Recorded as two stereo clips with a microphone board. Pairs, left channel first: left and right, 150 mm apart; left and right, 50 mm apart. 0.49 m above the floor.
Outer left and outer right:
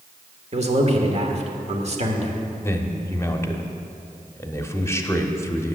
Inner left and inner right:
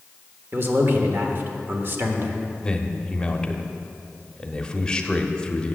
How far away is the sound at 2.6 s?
About 0.8 m.